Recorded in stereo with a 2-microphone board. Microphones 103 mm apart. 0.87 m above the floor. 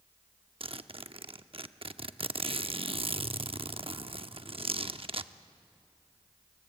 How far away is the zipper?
About 0.7 m.